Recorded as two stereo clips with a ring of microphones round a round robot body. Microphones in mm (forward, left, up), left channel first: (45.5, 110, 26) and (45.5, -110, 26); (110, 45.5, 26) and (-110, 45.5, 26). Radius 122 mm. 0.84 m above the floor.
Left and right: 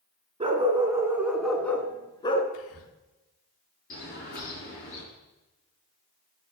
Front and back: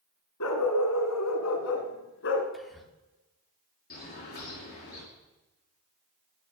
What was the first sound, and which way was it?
A dog barking, 25° right.